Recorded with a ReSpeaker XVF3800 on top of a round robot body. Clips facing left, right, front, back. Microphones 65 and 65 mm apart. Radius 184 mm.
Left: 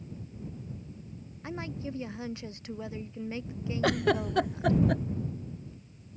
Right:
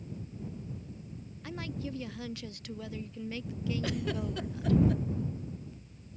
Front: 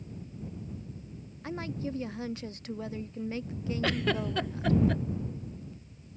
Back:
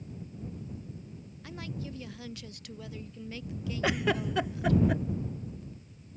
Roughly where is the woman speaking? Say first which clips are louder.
Left 2 dB, front 6 dB; ahead left.